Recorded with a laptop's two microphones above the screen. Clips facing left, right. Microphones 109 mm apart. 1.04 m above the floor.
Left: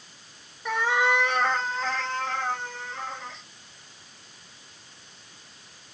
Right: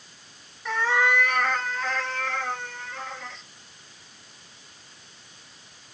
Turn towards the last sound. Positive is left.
turn(degrees=20)  # may be behind; listen again after turning